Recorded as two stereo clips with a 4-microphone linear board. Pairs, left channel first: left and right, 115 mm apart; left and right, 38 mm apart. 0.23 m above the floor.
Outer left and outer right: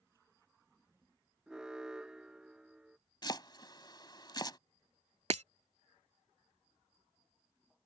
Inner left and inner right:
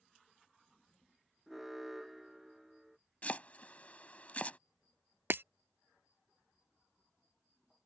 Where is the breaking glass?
70° right (ahead or behind).